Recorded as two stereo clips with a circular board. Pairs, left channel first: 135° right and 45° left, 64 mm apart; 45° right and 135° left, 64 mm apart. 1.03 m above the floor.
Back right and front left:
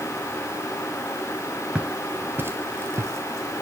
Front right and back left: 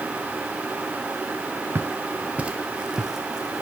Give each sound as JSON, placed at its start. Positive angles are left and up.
{"t": 1.8, "sound": "footsteps", "azimuth_deg": 105, "distance_m": 1.2}